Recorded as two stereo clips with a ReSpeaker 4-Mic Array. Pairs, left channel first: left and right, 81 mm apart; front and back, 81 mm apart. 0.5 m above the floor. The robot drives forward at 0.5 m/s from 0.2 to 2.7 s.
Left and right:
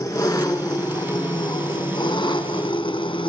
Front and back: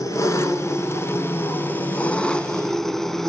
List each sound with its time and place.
0.0 s an engine running: 45° left, 2.0 m; by 3.3 s 85° left, 1.4 m